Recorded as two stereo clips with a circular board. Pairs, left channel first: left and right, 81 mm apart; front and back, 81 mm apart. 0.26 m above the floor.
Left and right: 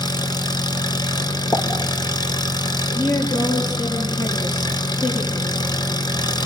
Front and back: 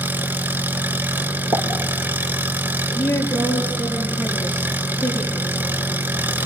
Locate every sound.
0.0 s an engine running: 115° left, 1.2 m
1.5 s a pop: 145° left, 5.5 m
3.0 s a woman speaking: 70° left, 6 m